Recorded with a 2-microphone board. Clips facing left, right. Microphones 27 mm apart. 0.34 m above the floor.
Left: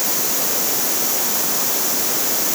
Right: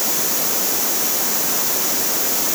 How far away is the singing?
No singing in this recording.